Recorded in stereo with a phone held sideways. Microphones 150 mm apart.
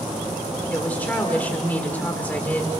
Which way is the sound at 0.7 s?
10° left (ahead or behind).